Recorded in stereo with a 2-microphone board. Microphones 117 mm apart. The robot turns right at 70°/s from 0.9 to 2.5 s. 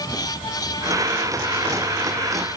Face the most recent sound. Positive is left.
No sound to turn to.